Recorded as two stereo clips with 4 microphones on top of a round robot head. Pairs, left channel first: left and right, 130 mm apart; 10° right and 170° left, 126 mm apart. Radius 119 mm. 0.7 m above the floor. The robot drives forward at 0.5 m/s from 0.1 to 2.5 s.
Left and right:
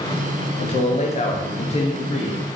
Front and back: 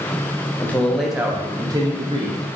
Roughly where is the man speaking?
Ahead left.